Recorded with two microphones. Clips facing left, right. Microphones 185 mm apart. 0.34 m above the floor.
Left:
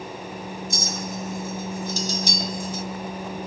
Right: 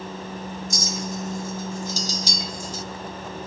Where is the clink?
55° left (ahead or behind), 1.2 m.